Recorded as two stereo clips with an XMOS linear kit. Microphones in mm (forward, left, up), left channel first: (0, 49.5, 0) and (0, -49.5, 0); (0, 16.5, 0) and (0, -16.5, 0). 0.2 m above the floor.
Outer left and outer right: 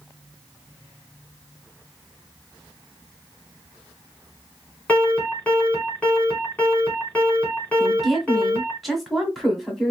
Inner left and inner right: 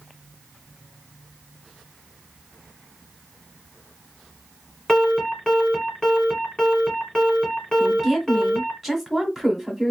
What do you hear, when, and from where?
4.9 s an alarm: 15° left (ahead or behind), 3 m
7.8 s a woman speaking: centre (ahead or behind), 1.5 m